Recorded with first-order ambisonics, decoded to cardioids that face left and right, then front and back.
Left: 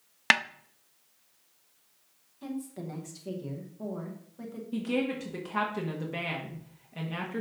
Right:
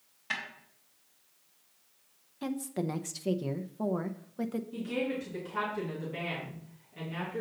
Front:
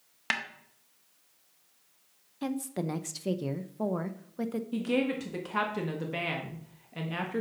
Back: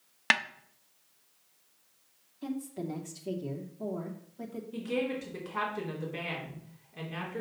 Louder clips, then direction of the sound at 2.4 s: Right 4 dB, front 4 dB; 35° right.